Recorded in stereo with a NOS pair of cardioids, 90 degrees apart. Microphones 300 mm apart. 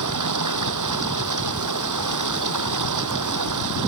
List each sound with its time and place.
0.0 s running water: 70° right